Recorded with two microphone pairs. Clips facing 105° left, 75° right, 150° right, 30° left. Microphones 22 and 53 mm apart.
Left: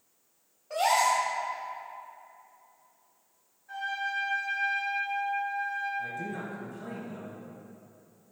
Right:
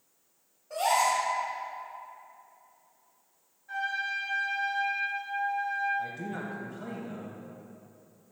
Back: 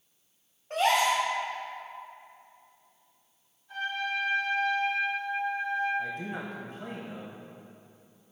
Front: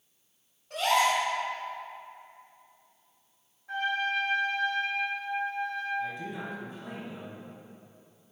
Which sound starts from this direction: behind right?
A man speaking, at 6.0 s.